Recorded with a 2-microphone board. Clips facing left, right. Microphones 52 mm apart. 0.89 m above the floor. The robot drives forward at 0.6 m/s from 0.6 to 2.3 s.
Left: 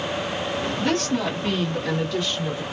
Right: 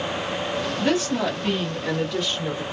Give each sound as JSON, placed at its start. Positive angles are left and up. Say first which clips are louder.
{"t": 0.8, "sound": "a woman speaking", "louder": "right 1 dB", "side_deg": -10, "distance_m": 1.1}